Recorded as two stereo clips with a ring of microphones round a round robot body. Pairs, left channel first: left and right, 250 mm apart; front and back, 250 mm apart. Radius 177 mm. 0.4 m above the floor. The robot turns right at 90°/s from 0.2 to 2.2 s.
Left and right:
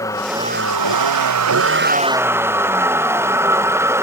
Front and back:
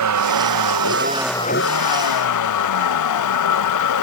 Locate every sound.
0.0 s a vehicle: 170° left; by 4.0 s 10° right